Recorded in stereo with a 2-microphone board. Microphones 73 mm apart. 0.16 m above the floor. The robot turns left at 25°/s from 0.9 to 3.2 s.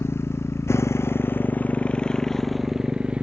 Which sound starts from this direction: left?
A motorcycle, at 0.0 s.